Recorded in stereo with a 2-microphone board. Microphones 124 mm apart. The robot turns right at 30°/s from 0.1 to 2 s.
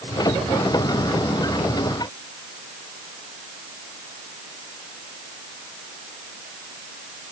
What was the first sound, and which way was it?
Only background noise.